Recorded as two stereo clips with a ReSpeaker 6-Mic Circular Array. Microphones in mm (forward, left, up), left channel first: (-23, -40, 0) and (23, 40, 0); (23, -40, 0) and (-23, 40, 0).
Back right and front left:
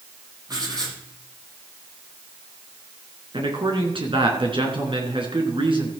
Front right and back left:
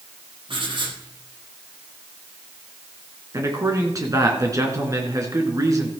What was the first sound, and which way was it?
Writing, 100° left.